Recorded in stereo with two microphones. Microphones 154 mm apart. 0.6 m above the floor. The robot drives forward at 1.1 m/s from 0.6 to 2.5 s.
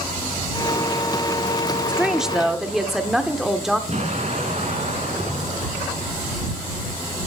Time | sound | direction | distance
1.9 | a woman speaking | 5° right (ahead or behind) | 0.7 m
3.9 | an explosion | 45° right (ahead or behind) | 2.5 m